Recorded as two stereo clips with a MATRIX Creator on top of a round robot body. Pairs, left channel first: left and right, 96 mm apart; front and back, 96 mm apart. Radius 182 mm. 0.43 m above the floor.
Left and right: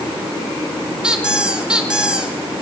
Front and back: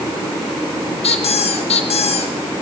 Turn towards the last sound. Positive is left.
turn(degrees=-10)